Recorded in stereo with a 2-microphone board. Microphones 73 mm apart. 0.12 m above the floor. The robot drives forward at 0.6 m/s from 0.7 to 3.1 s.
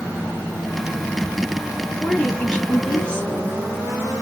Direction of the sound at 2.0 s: 15° left (ahead or behind).